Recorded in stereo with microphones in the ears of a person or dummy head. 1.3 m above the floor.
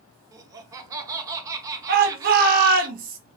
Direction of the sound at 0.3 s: 20° right (ahead or behind).